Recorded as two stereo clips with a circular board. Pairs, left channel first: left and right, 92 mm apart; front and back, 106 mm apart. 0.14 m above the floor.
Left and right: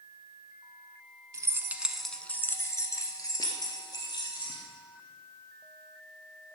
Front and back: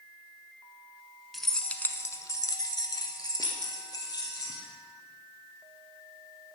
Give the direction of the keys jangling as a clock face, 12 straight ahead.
3 o'clock.